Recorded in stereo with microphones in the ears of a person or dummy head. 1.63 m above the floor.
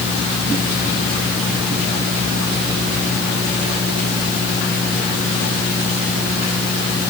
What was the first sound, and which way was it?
Only background noise.